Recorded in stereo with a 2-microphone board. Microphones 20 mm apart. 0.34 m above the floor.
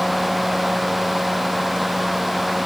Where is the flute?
I don't hear a flute.